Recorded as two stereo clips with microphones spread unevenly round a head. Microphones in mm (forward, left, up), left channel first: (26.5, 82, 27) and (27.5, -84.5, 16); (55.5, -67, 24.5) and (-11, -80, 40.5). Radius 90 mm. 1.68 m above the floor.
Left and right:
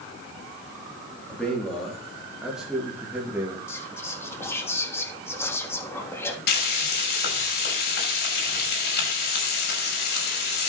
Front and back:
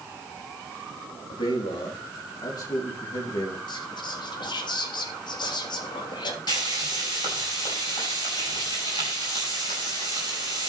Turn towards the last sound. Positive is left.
turn(degrees=65)